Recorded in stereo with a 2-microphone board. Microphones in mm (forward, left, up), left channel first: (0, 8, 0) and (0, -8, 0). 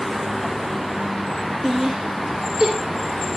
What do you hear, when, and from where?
1.6 s laughter: 60° right (ahead or behind), 2 m; by 3.4 s 70° right (ahead or behind), 3.5 m